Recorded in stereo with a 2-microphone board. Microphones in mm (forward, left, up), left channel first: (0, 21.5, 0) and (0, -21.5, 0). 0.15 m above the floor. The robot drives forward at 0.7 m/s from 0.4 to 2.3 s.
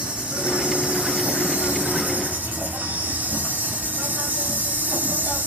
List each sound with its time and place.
0.0 s an insect: 25° right (ahead or behind), 2.5 m; by 5.5 s 45° right (ahead or behind), 1.4 m